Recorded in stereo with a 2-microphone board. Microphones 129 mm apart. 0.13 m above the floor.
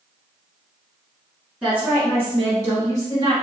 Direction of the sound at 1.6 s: 10° right (ahead or behind).